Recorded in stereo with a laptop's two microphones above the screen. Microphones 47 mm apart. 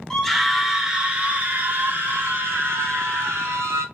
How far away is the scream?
About 1.1 m.